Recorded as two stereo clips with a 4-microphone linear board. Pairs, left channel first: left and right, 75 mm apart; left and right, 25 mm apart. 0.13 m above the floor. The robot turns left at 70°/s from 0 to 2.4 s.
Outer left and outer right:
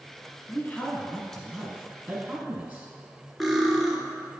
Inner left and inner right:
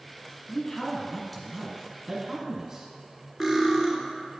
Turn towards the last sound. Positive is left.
turn(degrees=0)  # may be behind; listen again after turning